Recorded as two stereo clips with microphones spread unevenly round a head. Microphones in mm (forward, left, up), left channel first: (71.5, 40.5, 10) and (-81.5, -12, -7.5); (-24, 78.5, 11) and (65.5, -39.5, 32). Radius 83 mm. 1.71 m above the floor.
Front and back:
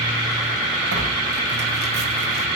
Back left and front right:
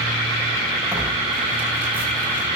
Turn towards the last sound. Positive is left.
turn(degrees=-130)